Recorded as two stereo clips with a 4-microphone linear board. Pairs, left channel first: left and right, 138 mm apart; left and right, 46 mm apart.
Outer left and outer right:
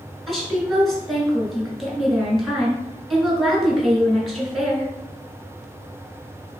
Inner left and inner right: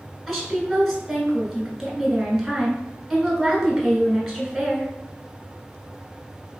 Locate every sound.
0.3 s a woman speaking: centre (ahead or behind), 1.6 m